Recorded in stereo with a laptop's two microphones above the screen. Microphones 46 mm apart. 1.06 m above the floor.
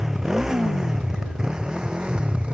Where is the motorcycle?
10° right (ahead or behind); by 2.5 s 20° right (ahead or behind).